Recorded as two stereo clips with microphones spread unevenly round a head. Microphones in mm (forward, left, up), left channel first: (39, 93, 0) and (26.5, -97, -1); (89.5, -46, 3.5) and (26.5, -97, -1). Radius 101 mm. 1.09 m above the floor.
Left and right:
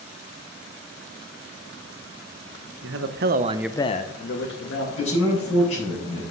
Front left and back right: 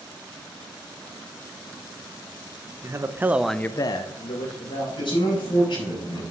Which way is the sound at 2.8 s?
95° right.